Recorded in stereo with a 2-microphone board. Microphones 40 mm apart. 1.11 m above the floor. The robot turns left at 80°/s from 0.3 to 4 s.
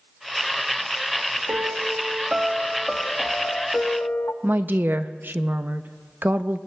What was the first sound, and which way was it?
A piano, 80° right.